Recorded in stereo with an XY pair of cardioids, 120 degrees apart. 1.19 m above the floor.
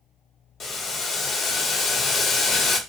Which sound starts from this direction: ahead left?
Boiling, at 0.6 s.